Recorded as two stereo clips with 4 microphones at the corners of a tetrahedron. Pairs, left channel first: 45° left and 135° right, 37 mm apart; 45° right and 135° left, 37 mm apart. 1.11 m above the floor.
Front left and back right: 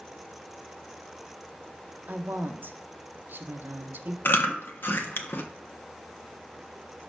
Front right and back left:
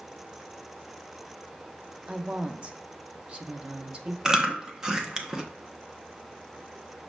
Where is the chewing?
65° left, 1.1 m.